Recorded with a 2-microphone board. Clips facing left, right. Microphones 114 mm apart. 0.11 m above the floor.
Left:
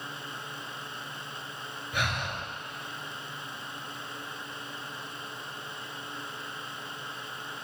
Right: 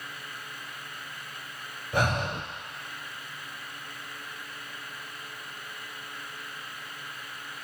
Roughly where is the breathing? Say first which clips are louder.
Right 6 dB; right.